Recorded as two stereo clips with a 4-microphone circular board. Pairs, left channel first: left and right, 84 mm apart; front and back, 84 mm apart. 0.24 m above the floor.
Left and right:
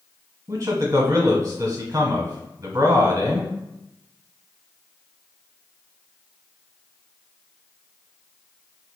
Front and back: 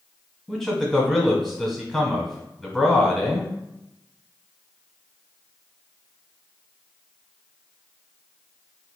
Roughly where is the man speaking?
Right.